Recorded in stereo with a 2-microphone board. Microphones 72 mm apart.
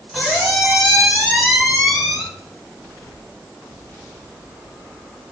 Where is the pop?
I don't hear a pop.